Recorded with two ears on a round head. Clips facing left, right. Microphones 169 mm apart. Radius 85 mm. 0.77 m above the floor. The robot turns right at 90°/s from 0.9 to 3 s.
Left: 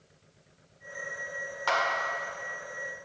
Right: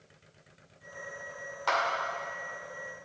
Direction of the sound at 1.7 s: Centre (ahead or behind).